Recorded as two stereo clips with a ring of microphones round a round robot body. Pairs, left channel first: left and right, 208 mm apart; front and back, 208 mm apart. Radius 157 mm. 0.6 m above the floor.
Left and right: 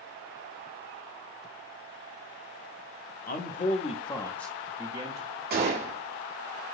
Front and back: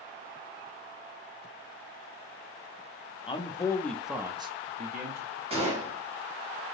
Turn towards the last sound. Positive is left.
turn(degrees=-120)